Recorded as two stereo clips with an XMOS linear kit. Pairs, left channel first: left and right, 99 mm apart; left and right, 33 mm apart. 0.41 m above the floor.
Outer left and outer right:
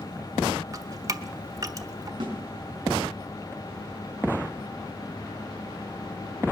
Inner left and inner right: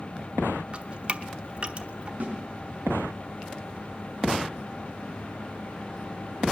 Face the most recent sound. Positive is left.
turn(degrees=-50)  # may be behind; listen again after turning